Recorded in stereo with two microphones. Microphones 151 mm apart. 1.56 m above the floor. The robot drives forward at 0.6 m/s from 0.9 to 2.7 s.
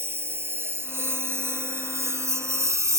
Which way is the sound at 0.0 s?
15° right (ahead or behind).